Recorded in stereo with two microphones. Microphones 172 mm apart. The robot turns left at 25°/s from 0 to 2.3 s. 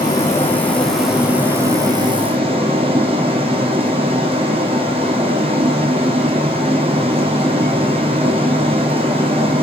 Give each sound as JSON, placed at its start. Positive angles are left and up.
{"t": 0.0, "sound": "running water", "azimuth_deg": 25, "distance_m": 3.0}